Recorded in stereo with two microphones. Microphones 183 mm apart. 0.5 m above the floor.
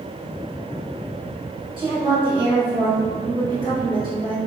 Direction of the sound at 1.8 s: 30° right (ahead or behind).